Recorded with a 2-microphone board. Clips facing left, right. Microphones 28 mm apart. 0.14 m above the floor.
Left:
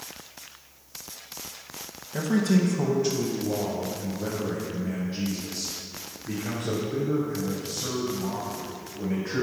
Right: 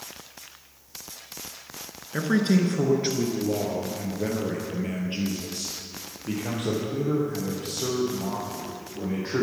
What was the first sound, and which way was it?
A man speaking, 30° right (ahead or behind).